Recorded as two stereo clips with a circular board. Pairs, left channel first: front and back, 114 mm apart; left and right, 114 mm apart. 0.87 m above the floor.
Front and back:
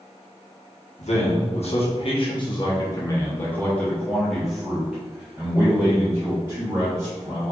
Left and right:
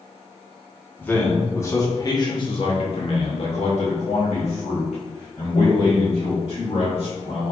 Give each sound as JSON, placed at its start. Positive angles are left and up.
{"t": 1.0, "sound": "a man speaking", "azimuth_deg": 15, "distance_m": 1.5}